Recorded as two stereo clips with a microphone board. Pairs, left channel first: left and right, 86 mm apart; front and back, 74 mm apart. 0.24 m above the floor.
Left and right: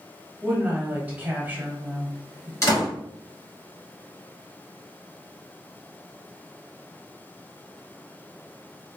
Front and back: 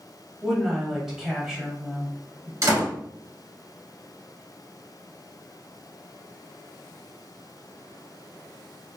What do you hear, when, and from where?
0.4 s a woman speaking: 105° right, 1.0 m
2.6 s a door slam: 135° left, 1.8 m